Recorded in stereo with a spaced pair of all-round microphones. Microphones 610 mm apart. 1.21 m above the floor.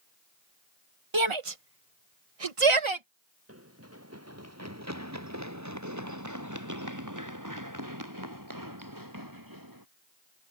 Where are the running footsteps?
20° right (ahead or behind); by 9.8 s 35° right (ahead or behind).